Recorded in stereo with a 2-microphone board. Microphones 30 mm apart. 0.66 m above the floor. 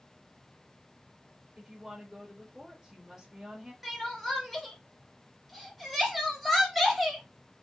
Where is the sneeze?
I don't hear a sneeze.